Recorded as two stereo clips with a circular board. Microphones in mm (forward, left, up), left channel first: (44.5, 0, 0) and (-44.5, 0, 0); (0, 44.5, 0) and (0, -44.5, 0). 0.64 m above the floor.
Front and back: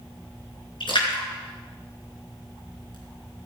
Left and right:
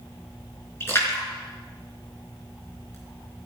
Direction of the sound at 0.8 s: 30° left.